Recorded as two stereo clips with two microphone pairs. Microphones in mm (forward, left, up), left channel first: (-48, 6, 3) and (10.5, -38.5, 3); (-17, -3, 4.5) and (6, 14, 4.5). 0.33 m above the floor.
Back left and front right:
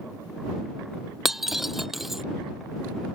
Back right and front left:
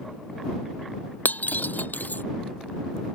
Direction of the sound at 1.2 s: 125° right.